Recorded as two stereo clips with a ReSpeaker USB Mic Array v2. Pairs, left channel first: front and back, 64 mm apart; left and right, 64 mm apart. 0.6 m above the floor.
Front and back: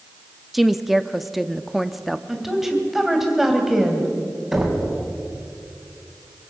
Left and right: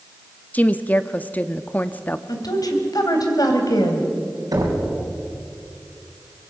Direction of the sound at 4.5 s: 100° right.